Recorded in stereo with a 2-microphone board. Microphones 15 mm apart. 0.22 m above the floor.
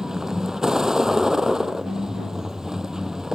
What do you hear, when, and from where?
0.0 s a vehicle: 45° right (ahead or behind)